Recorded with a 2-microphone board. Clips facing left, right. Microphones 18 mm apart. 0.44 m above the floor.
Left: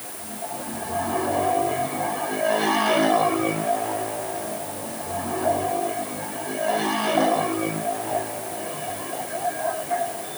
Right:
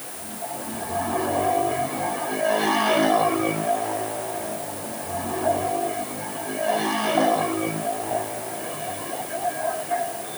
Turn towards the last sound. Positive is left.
No sound to turn to.